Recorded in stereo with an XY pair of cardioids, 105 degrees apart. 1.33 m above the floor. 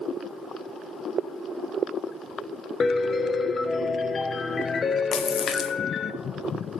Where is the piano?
40° left, 0.7 m.